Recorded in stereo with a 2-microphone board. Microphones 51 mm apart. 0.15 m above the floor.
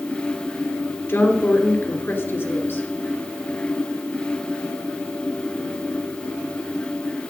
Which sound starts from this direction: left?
A woman speaking, at 1.1 s.